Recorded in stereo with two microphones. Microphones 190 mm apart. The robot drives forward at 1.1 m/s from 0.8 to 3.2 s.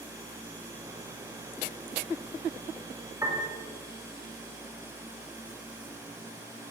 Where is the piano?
15° right (ahead or behind), 2.5 m.